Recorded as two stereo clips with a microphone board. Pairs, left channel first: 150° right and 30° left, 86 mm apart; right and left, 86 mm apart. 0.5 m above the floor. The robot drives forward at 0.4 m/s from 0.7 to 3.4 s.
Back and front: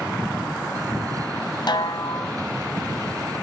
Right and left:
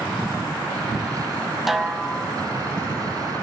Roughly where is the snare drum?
Behind.